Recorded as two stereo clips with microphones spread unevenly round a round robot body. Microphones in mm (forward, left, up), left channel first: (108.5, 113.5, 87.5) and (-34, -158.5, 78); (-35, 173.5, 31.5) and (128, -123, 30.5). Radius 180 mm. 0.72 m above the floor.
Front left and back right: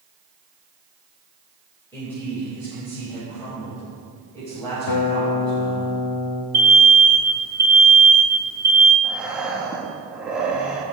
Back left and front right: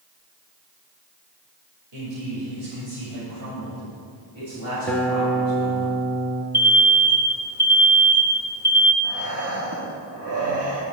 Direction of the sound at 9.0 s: 30° right.